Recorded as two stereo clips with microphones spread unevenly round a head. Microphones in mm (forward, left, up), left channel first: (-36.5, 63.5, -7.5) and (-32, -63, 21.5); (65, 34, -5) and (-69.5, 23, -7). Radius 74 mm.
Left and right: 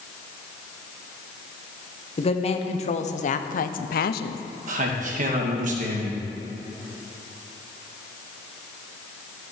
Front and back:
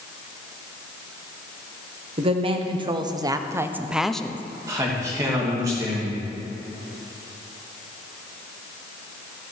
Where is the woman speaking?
135° left, 1.5 m; by 4.4 s 80° left, 0.7 m.